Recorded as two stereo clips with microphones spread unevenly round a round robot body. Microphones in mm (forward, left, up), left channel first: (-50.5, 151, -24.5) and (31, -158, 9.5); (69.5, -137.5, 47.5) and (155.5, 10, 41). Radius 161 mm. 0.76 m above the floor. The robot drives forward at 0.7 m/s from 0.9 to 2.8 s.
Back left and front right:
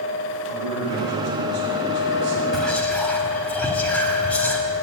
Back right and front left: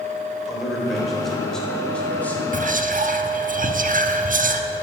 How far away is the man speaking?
About 4 m.